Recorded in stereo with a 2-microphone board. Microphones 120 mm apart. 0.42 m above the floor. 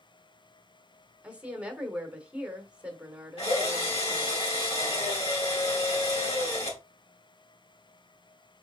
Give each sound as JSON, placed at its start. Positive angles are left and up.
{"t": 1.2, "sound": "a woman speaking", "side_deg": -10, "distance_m": 1.1}
{"t": 3.4, "sound": "a drill", "side_deg": 55, "distance_m": 2.5}